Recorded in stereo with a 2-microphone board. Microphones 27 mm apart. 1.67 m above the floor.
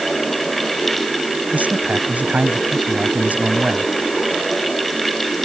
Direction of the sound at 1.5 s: 75° right (ahead or behind).